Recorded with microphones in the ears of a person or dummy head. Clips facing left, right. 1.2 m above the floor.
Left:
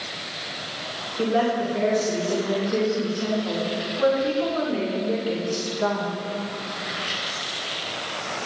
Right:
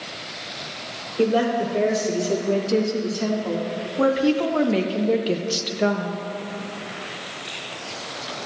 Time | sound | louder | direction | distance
1.2 | a woman speaking | right 2 dB | 50° right (ahead or behind) | 3 m